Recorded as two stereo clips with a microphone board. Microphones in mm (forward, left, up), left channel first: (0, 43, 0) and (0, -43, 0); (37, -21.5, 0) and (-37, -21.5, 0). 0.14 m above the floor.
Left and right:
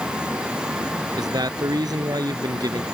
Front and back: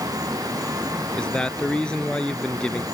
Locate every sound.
1.2 s a man speaking: 75° right